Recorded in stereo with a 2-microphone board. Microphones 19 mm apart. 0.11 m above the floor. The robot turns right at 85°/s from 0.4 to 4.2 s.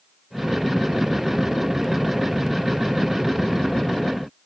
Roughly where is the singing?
No singing in this recording.